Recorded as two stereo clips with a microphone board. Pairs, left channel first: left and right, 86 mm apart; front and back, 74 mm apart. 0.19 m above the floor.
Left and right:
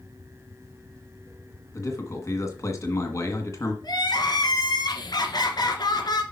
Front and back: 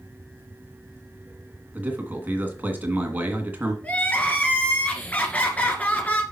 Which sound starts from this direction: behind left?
A man speaking, at 1.7 s.